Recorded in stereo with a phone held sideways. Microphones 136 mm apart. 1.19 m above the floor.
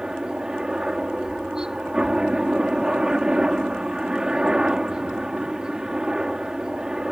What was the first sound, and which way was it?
A helicopter, 5° right (ahead or behind).